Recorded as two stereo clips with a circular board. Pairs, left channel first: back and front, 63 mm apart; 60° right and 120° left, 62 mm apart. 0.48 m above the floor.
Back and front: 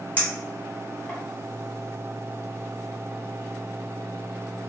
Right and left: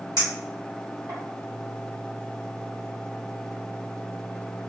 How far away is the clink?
About 1.4 m.